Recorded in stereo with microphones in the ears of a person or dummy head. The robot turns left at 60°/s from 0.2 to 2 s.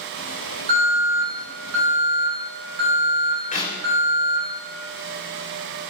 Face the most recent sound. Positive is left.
turn(degrees=40)  # may be behind; listen again after turning